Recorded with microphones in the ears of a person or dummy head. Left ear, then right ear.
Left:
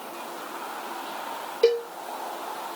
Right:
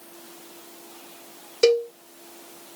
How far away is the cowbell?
About 1.9 m.